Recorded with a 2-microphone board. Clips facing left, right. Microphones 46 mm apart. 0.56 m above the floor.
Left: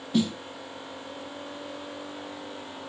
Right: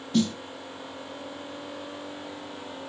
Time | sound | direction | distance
0.1 | a snare drum | 10° left (ahead or behind) | 0.6 m